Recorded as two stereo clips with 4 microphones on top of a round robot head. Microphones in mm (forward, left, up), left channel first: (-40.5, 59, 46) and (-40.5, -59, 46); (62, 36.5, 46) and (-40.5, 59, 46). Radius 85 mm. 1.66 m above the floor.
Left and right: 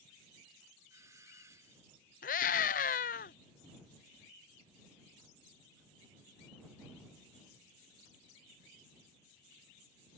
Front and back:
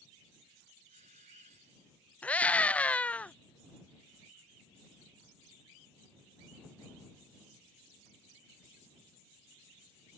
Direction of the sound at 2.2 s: 65° left.